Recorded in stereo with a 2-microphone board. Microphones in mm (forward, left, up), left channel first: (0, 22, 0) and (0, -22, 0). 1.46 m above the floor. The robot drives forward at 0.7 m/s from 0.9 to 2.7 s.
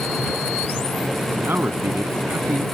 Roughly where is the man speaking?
Right.